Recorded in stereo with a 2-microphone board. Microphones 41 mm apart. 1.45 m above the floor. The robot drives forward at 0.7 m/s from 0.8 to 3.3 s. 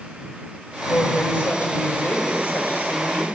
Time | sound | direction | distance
0.9 | a woman speaking | 55° left (ahead or behind) | 7.5 m